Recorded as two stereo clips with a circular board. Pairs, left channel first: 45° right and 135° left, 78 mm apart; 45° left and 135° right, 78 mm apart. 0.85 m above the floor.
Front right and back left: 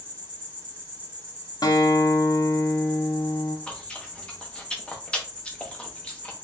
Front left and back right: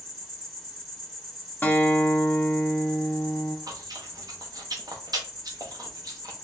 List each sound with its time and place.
0.0 s an insect: 135° left, 1.4 m
1.6 s a guitar: 20° right, 0.7 m
3.7 s chewing: 120° right, 0.8 m